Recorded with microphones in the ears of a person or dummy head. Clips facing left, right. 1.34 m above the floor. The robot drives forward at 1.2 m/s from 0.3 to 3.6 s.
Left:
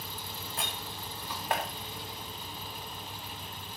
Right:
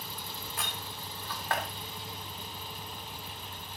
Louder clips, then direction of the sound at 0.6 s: Left 2 dB; 25° left (ahead or behind).